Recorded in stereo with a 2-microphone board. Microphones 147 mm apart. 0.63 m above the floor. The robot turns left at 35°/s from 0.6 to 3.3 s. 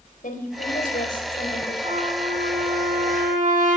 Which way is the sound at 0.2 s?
100° left.